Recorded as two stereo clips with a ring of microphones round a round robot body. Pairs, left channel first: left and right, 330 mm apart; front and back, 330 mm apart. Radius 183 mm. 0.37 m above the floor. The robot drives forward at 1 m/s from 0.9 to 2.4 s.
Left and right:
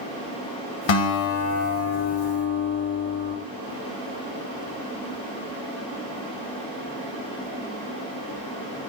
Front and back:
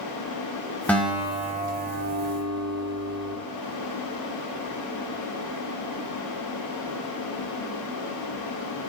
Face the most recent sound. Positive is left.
turn(degrees=135)